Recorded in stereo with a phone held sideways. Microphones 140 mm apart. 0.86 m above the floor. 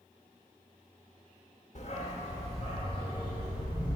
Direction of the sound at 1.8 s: 50° left (ahead or behind).